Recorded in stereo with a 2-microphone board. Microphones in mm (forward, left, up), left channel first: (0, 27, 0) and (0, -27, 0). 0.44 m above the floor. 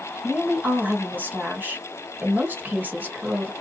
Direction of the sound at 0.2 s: 35° right (ahead or behind).